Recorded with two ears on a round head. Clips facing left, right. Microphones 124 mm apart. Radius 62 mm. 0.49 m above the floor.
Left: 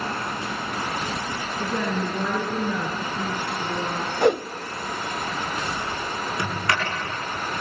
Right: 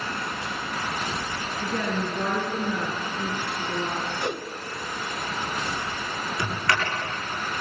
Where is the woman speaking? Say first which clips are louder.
Left 2 dB; 85° left, 6.5 m.